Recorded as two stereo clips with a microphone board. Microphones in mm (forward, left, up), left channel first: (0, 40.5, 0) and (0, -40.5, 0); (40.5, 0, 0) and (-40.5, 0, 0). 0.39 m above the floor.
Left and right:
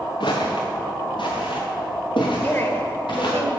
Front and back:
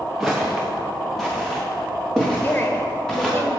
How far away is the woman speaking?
About 1.2 m.